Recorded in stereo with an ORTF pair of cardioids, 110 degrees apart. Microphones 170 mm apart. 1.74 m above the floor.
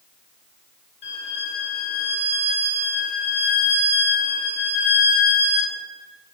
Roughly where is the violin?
Ahead left.